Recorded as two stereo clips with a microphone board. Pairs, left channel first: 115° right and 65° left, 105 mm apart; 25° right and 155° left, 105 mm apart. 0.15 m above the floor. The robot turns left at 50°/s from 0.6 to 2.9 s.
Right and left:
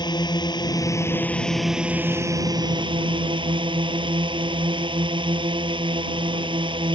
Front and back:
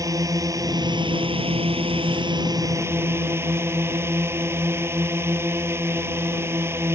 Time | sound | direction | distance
0.0 | a drone | 150° right | ?